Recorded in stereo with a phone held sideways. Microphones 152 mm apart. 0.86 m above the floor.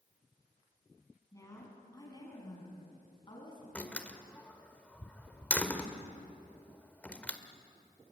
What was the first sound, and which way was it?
A woman speaking, 20° left (ahead or behind).